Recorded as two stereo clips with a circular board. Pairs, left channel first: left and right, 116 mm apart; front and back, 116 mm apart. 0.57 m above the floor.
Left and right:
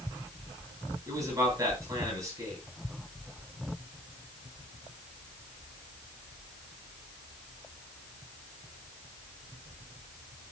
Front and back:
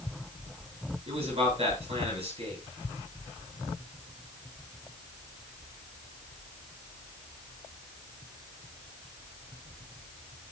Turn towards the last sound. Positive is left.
turn(degrees=-150)